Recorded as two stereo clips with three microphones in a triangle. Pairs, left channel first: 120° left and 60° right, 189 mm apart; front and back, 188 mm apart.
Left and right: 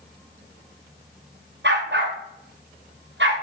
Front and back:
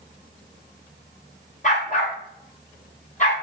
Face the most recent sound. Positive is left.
turn(degrees=-50)